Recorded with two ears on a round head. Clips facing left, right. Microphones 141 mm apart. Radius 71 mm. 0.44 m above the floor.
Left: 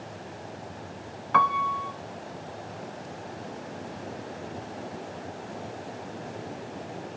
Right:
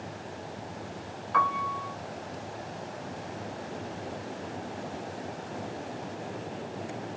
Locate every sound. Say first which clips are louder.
1.3 s a piano: left 4 dB; 65° left (ahead or behind), 0.6 m